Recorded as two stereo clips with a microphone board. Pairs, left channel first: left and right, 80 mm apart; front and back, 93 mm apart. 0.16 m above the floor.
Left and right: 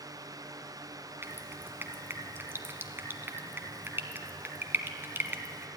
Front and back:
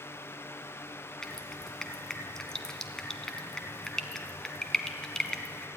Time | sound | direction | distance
1.2 | dripping | 75° right | 1.5 m